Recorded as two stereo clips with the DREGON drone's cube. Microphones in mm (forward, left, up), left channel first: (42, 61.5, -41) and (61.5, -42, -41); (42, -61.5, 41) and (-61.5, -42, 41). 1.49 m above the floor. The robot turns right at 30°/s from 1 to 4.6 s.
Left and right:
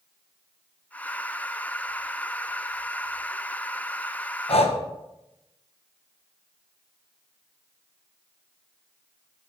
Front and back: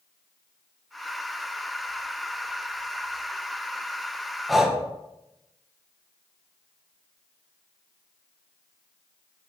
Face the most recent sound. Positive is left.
turn(degrees=80)